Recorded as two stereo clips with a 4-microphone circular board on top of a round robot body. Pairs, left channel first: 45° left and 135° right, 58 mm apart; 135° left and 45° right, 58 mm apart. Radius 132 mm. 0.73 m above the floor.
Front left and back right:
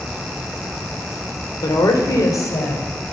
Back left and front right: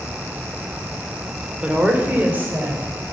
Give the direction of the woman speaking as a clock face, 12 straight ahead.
11 o'clock.